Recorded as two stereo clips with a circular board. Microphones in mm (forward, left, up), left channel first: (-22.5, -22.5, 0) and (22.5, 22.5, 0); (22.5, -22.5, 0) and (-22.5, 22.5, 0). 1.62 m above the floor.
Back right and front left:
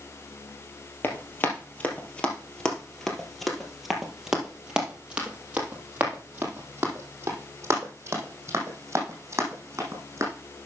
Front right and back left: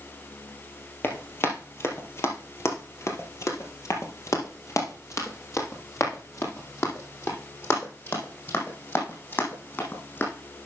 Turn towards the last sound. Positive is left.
turn(degrees=5)